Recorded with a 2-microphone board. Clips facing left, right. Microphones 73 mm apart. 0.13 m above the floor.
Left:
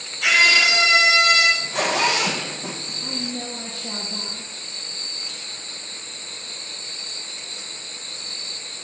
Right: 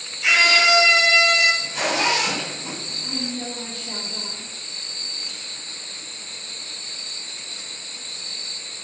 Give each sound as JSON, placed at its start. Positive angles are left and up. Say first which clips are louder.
{"t": 0.2, "sound": "a scream", "louder": "even", "side_deg": 60, "distance_m": 3.0}
{"t": 1.6, "sound": "a zipper", "louder": "left 2 dB", "side_deg": 55, "distance_m": 4.5}
{"t": 3.0, "sound": "a woman speaking", "louder": "even", "side_deg": 60, "distance_m": 3.5}